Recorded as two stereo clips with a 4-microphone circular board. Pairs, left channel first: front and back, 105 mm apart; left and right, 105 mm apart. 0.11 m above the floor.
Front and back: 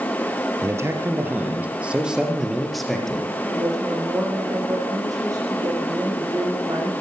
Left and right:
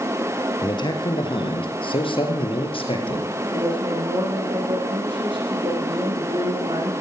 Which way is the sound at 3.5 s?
125° right.